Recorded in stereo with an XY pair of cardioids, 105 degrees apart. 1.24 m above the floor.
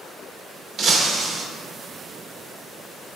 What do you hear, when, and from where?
0.8 s breaking glass: 70° right, 0.9 m